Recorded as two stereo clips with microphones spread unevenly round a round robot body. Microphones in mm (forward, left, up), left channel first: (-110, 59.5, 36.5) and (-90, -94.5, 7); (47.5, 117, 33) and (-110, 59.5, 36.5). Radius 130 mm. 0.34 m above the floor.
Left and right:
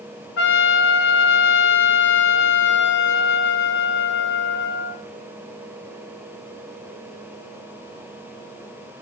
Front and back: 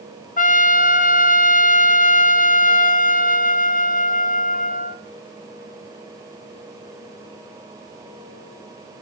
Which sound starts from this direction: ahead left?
A trumpet, at 0.4 s.